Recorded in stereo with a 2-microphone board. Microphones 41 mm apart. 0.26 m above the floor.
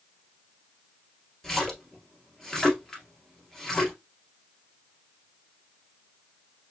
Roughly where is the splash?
Centre.